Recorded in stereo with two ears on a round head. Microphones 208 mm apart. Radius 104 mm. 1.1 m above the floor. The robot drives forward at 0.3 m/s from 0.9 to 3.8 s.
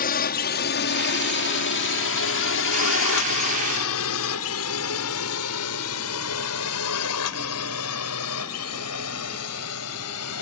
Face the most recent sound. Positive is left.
turn(degrees=70)  # may be behind; listen again after turning